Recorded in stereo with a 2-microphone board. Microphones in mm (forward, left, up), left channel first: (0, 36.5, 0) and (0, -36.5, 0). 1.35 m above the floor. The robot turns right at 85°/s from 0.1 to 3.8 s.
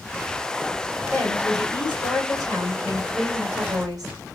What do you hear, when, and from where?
1.1 s a woman speaking: 20° left, 1.8 m; by 4.1 s 115° right, 1.8 m